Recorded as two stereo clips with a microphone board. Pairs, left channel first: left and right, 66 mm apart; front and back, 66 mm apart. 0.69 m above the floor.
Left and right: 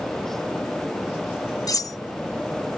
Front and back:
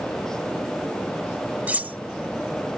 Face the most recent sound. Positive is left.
turn(degrees=115)